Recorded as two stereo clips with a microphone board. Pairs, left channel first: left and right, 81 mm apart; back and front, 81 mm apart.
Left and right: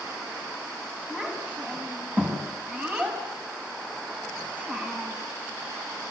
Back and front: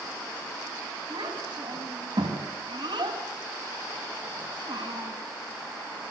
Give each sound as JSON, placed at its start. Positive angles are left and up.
{"t": 1.1, "sound": "a child speaking", "azimuth_deg": -20, "distance_m": 6.5}